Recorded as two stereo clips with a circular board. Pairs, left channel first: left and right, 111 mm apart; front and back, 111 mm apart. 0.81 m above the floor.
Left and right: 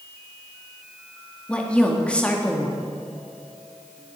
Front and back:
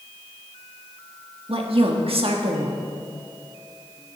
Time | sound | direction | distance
1.5 | a woman speaking | 170° left | 1.5 m